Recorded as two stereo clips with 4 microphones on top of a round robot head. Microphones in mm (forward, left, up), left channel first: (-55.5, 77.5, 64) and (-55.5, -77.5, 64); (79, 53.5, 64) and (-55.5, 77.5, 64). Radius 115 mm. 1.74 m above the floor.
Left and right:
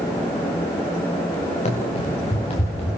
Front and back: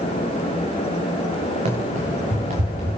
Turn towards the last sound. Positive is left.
turn(degrees=140)